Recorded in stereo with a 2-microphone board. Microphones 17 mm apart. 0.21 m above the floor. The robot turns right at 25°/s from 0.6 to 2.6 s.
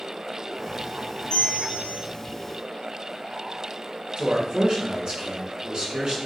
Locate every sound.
1.3 s a bell: 55° left (ahead or behind), 0.9 m; by 2.0 s 35° left (ahead or behind), 0.9 m
4.2 s a man speaking: 50° right (ahead or behind), 2.5 m